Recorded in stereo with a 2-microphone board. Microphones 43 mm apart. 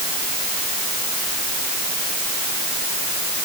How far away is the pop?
I don't hear a pop.